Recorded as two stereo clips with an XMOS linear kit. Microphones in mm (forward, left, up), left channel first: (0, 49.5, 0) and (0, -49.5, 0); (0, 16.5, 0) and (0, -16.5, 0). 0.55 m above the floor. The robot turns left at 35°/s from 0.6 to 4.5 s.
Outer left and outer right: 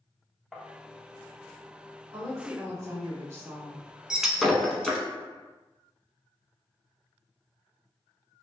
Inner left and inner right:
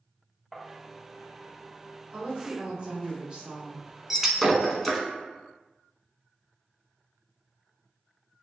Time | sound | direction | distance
0.5 | tapping | centre (ahead or behind) | 0.6 m
2.1 | a woman speaking | 85° right | 1.3 m
4.1 | breaking glass | 10° right (ahead or behind) | 0.7 m